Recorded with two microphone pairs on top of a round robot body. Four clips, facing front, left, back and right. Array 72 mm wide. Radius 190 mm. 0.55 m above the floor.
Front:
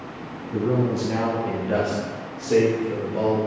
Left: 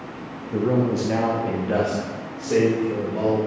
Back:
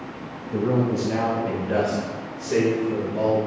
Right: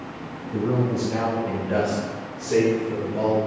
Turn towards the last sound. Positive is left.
turn(degrees=30)